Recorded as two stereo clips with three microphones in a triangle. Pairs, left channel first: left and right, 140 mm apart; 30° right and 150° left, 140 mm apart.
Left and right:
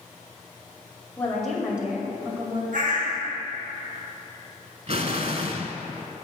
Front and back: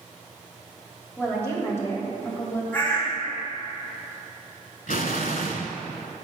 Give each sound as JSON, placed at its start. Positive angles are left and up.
{"t": 1.2, "sound": "a woman speaking", "azimuth_deg": 20, "distance_m": 1.6}
{"t": 2.7, "sound": "a bird", "azimuth_deg": -105, "distance_m": 3.0}
{"t": 4.9, "sound": "an explosion", "azimuth_deg": -45, "distance_m": 0.7}